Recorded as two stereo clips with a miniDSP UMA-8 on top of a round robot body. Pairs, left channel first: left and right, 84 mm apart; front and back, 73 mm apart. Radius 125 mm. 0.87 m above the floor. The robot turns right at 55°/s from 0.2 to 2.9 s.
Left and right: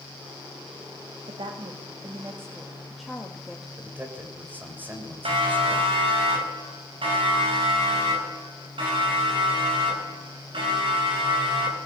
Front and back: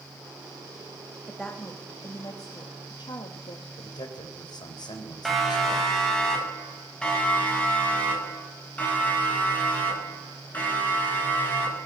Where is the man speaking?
20° right, 4 m.